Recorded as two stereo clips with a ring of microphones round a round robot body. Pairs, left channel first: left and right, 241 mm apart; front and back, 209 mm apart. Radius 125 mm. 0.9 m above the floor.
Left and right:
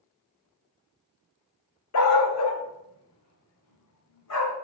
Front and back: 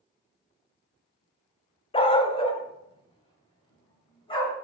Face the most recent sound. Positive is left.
turn(degrees=65)